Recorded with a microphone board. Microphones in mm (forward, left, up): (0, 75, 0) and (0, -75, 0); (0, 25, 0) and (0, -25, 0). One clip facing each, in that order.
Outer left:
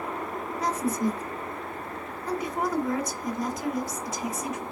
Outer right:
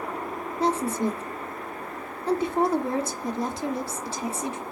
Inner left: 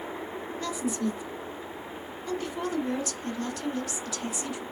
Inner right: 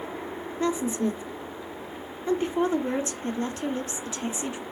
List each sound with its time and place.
0.6 s a woman speaking: 30° right (ahead or behind), 1.8 m